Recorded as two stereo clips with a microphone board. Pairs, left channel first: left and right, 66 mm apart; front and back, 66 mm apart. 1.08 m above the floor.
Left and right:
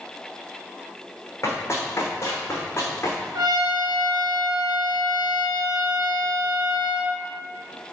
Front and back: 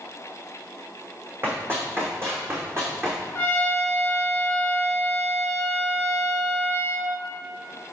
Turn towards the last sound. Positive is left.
turn(degrees=-65)